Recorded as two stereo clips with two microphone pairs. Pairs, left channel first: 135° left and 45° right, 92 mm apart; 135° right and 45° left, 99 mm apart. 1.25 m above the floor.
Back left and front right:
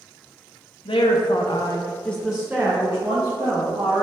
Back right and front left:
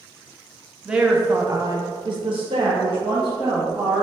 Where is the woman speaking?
130° left, 0.8 m; by 4.0 s straight ahead, 1.5 m.